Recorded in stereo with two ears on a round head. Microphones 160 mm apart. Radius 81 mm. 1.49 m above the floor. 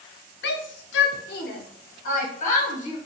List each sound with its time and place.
0.4 s a shout: 60° left (ahead or behind), 0.5 m; by 3.0 s 40° left (ahead or behind), 1.7 m